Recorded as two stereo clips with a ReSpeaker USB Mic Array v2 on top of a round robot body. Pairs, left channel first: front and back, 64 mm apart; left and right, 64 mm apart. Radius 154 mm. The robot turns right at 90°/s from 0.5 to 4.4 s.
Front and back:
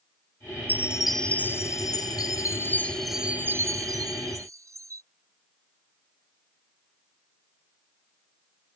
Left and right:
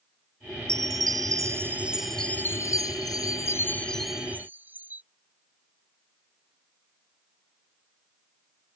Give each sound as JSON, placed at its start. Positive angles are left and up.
{"t": 0.7, "sound": "a chime", "azimuth_deg": -125}